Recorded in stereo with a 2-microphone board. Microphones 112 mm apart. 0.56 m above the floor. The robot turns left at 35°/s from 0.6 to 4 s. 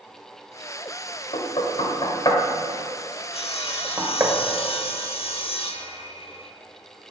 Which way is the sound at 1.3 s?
65° left (ahead or behind).